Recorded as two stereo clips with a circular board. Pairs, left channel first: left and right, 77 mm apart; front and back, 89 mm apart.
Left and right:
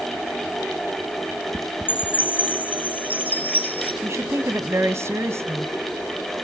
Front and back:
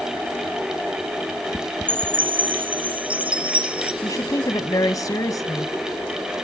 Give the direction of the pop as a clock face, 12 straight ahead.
I don't hear a pop.